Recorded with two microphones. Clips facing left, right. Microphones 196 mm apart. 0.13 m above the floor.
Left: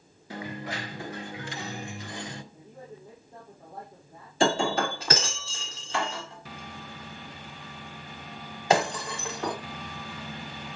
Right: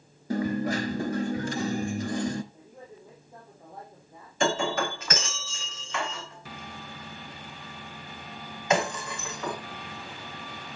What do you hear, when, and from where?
0.3 s a dropped coin: 45° right (ahead or behind), 0.9 m
2.5 s a man speaking: centre (ahead or behind), 7 m
4.4 s breaking glass: 35° left (ahead or behind), 5.5 m